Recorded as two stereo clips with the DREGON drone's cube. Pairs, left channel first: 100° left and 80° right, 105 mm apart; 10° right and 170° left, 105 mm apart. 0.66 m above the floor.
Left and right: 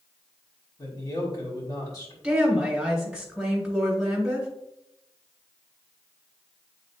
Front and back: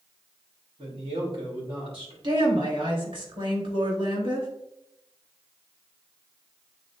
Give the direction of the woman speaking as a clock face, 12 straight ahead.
5 o'clock.